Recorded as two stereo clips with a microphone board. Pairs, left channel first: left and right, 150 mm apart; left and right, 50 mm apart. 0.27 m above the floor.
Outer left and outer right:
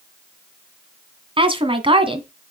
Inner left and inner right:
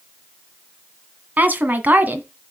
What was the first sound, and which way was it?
A woman speaking, 35° right (ahead or behind).